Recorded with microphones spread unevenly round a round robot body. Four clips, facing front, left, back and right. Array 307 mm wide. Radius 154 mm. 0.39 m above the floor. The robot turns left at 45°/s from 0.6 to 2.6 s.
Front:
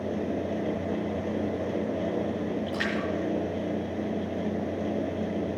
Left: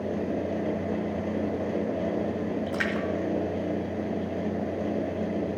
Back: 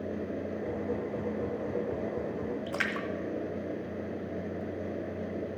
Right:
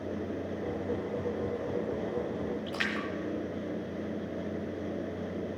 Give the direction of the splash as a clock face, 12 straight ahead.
6 o'clock.